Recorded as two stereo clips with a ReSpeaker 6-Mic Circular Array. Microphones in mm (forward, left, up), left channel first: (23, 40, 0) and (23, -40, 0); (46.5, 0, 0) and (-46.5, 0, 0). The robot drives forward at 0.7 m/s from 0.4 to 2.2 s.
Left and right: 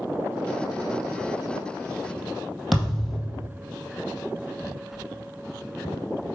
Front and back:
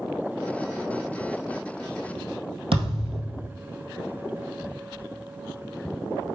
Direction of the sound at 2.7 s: 175° right.